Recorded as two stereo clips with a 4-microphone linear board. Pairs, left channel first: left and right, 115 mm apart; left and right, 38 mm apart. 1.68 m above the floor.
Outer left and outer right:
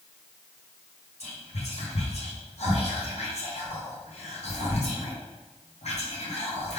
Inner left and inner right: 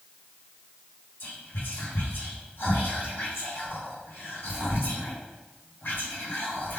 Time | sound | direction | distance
1.2 | whispering | 70° left (ahead or behind) | 1.1 m